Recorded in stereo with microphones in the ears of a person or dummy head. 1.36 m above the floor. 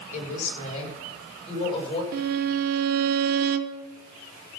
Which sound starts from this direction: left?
A woman speaking, at 0.1 s.